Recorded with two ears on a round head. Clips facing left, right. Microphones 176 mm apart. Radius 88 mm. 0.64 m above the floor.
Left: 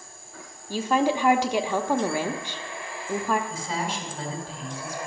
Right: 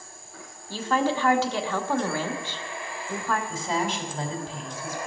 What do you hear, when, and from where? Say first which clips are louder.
0.7 s a woman speaking: left 2 dB; 15° left (ahead or behind), 0.9 m
3.5 s a woman speaking: right 3 dB; 65° right (ahead or behind), 3 m